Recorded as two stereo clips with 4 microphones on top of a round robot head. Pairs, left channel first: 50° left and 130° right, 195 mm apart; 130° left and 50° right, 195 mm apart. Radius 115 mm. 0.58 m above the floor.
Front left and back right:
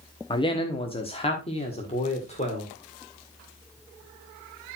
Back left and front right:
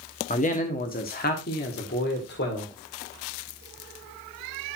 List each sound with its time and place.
0.3 s a man speaking: 105° left, 1.1 m